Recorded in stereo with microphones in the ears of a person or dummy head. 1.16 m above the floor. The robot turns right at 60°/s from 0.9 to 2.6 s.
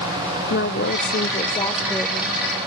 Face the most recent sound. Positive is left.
turn(degrees=-150)